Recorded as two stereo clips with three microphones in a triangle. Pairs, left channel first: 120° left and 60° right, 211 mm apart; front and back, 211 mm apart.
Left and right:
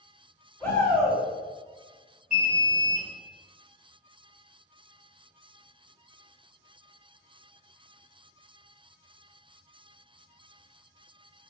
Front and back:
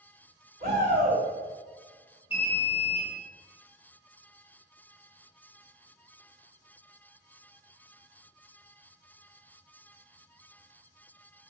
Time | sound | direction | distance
0.6 | a shout | 160° right | 1.8 m
2.3 | an alarm | 50° right | 1.0 m